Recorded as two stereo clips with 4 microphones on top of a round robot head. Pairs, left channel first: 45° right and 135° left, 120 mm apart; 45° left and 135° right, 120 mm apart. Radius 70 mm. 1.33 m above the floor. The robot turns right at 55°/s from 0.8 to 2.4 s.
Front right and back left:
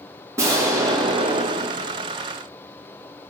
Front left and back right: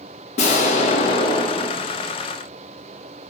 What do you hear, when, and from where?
0.4 s an explosion: 70° left, 2 m; by 2.1 s 140° left, 2 m